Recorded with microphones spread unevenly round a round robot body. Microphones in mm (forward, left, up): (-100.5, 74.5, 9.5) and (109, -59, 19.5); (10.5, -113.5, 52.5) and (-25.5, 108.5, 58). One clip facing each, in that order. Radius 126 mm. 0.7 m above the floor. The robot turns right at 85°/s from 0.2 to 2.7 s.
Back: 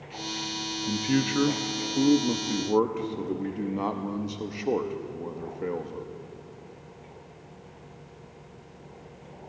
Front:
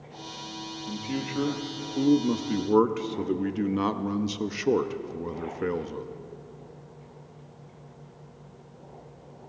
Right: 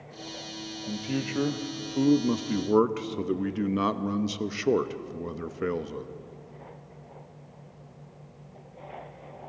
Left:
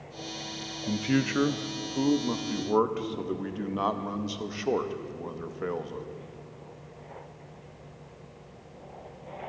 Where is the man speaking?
130° left, 0.6 m; by 6.1 s 75° right, 0.6 m.